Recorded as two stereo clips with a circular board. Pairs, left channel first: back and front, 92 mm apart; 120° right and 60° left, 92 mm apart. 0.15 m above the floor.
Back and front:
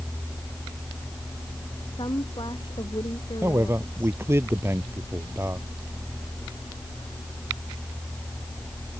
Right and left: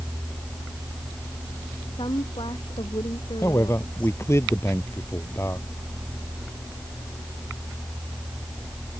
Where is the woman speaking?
145° right.